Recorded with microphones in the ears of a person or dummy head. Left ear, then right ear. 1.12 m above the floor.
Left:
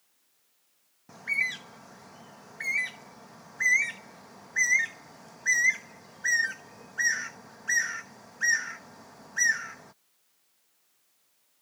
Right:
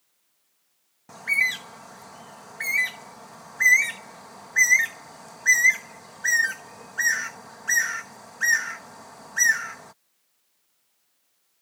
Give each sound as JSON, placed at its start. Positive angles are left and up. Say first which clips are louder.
{"t": 1.1, "sound": "a bird", "louder": "right 6 dB", "side_deg": -30}